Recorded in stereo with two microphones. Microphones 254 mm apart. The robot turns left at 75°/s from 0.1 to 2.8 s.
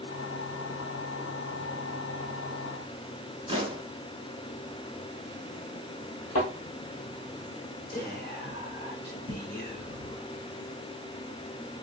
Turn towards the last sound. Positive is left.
turn(degrees=40)  # may be behind; listen again after turning